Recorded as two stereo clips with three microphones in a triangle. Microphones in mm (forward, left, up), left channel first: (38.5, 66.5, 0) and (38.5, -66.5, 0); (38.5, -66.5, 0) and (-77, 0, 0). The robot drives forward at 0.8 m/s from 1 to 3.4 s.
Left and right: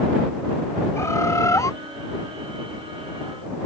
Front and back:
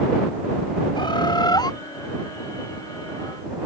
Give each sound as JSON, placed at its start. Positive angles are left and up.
{"t": 0.9, "sound": "a bird", "azimuth_deg": 20}